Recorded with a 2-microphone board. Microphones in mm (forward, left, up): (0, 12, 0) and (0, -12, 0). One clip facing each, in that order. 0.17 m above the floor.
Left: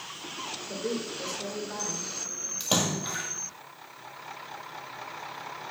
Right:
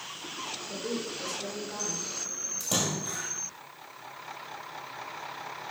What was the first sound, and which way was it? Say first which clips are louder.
A woman speaking: left 3 dB; 55° left (ahead or behind).